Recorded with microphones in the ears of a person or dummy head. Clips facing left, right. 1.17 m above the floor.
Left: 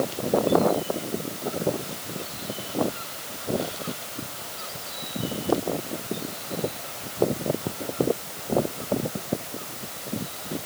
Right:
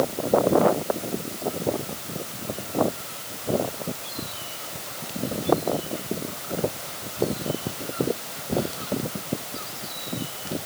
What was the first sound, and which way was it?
Only background noise.